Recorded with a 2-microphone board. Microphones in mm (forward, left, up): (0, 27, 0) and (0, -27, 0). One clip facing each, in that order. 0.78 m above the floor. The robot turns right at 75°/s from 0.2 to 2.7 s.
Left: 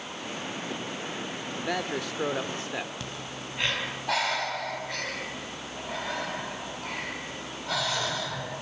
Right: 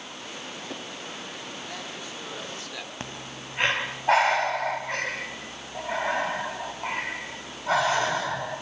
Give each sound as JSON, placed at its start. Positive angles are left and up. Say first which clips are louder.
{"t": 1.6, "sound": "a man speaking", "louder": "left 7 dB", "azimuth_deg": 65, "distance_m": 2.5}
{"t": 3.0, "sound": "breathing", "louder": "even", "side_deg": -35, "distance_m": 3.0}